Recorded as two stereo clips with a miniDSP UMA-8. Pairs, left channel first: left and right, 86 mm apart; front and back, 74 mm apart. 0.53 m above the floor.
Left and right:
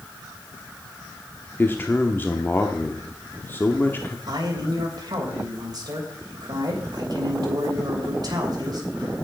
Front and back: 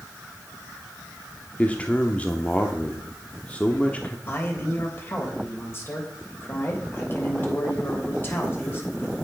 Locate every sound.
1.6 s a man speaking: 50° left, 0.9 m
4.3 s a man speaking: 55° right, 3 m